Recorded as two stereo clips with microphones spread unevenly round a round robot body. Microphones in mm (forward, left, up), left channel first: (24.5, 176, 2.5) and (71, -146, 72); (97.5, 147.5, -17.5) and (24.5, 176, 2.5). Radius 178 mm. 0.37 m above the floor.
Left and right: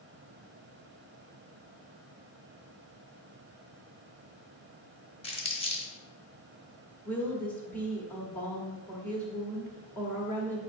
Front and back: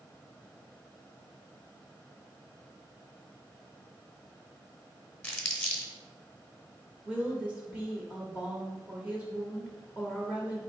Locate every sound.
5.2 s crumpling: 40° left, 1.0 m
7.0 s a woman speaking: 70° left, 0.9 m